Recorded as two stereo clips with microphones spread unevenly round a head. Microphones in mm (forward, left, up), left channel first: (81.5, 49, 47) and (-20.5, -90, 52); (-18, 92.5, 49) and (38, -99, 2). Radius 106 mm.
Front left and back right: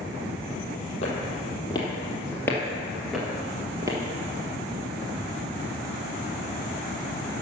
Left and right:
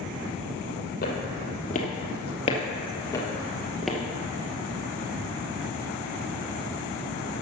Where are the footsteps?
110° left, 2.5 m; by 4.0 s straight behind, 1.7 m.